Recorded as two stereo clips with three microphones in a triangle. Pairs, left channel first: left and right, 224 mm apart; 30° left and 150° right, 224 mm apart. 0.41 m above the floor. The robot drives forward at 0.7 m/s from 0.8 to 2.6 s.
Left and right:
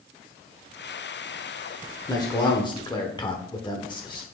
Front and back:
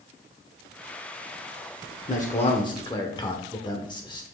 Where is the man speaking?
30° left, 1.0 m; by 4.2 s 60° left, 0.9 m.